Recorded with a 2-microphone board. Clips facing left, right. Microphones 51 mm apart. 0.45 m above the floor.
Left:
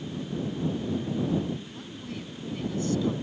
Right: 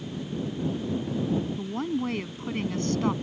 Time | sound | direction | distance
1.6 | a woman speaking | 55° right (ahead or behind) | ?